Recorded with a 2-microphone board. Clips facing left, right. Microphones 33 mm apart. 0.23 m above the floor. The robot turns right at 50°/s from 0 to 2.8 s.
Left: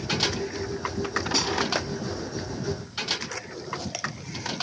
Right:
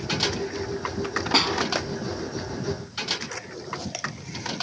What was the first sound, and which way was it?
A snare drum, 45° right (ahead or behind).